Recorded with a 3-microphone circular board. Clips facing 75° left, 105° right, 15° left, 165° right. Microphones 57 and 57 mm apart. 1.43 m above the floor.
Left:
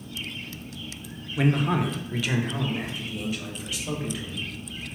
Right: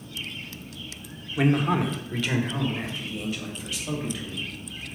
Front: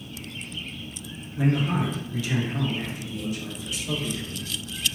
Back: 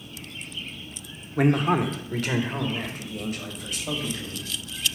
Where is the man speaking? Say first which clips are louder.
Right 1 dB, back 3 dB; 170° left, 0.8 m; by 4.5 s 155° left, 2.5 m.